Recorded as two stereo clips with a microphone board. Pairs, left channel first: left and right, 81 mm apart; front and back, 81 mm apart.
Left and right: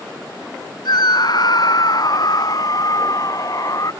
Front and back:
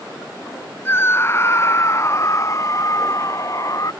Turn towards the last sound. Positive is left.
turn(degrees=45)